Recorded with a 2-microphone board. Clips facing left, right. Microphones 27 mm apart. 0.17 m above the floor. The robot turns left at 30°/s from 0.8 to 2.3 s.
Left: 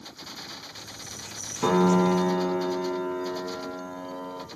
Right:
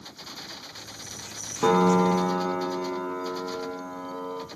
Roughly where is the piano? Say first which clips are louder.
Right 1 dB; centre.